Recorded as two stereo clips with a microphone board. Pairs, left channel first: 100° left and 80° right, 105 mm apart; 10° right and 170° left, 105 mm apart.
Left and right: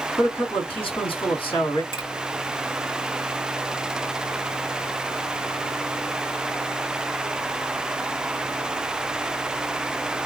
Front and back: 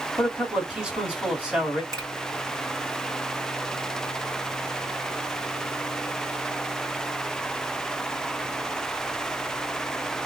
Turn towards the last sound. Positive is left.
turn(degrees=120)